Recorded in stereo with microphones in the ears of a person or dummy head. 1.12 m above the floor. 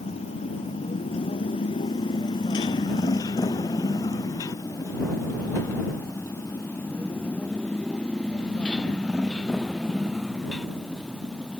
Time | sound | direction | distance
0.0 | a motorcycle | 35° left (ahead or behind) | ?